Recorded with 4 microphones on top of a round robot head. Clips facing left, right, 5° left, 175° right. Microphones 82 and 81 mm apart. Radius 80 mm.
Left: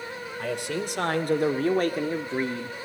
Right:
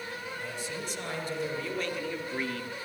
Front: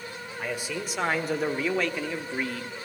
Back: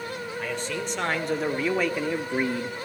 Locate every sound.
0.4 s a man speaking: 85° left, 2 m; by 2.8 s 150° left, 1.1 m